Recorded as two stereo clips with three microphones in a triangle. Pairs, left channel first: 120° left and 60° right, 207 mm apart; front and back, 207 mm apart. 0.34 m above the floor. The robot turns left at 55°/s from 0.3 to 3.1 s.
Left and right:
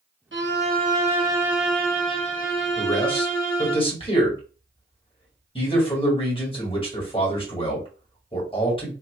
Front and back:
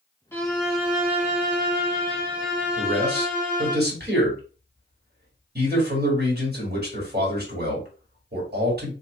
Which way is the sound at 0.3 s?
75° right.